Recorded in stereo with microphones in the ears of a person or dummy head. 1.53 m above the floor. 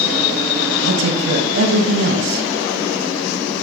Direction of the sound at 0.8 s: 75° right (ahead or behind).